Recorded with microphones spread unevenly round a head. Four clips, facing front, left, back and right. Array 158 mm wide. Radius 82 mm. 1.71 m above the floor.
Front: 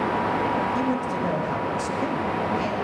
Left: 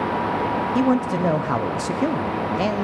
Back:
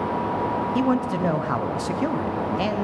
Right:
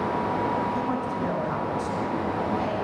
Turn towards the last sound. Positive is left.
turn(degrees=100)